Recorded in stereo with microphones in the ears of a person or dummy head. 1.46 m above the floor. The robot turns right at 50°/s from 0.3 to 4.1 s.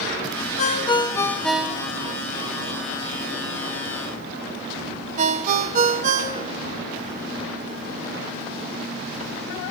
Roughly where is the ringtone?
Left.